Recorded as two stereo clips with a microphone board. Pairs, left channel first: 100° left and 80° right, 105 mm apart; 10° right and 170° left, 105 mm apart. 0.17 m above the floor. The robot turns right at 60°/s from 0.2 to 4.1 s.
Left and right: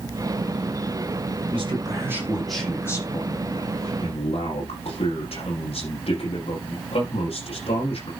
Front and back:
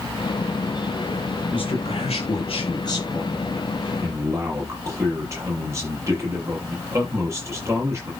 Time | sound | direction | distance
1.5 | a man speaking | 50° right | 6.5 m